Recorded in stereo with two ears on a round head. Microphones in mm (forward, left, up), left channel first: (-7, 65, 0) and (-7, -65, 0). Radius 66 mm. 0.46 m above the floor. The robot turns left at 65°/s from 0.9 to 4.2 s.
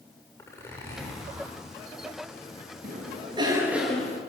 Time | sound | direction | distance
0.4 | a zipper | 20° left | 8 m
2.8 | a cough | 110° right | 7.5 m